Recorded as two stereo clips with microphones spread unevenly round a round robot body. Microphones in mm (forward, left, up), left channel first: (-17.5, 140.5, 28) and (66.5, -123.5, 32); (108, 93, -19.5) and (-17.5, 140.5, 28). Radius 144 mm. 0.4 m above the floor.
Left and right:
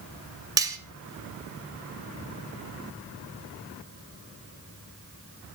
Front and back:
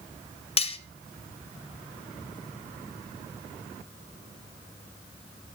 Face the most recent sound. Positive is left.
turn(degrees=5)